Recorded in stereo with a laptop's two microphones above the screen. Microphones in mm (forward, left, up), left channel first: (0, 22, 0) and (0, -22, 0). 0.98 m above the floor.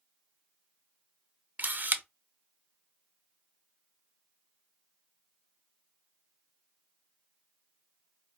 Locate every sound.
1.6 s a camera shutter: 40° right (ahead or behind), 0.6 m